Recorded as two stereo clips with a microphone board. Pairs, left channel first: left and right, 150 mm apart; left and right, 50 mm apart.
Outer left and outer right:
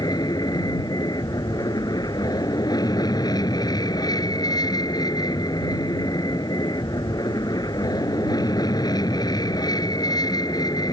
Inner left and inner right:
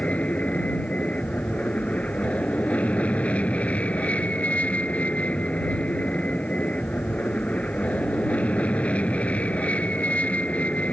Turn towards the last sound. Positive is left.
turn(degrees=25)  # may be behind; listen again after turning